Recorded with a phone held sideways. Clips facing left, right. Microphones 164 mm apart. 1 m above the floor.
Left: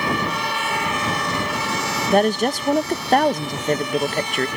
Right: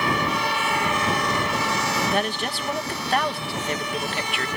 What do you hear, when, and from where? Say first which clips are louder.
2.1 s a woman speaking: left 8 dB; 45° left (ahead or behind)